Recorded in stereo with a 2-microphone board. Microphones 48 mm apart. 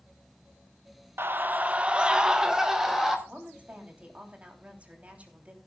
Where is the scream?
50° right (ahead or behind), 0.8 m; by 3.2 s 5° right (ahead or behind), 2.5 m.